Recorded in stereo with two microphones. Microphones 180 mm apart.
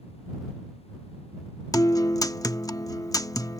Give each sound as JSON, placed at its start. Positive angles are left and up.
{"t": 1.7, "sound": "a guitar", "side_deg": 20}